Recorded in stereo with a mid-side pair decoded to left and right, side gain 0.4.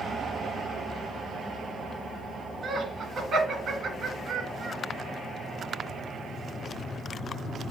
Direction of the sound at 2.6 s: 60° right.